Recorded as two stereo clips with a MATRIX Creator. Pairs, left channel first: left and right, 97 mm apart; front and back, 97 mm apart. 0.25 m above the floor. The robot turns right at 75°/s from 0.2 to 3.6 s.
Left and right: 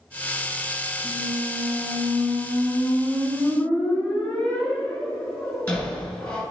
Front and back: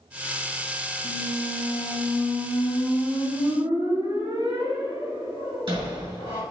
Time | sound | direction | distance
1.0 | a squeak | 35° right | 1.9 m